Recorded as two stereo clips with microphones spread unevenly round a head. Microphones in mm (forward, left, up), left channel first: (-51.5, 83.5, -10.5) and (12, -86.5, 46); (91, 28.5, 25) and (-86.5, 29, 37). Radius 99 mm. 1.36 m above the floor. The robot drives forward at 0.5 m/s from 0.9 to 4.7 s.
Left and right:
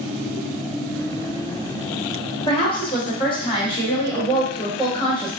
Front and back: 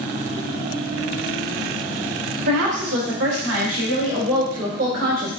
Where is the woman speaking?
170° left, 1.3 m; by 5.3 s 175° left, 2.5 m.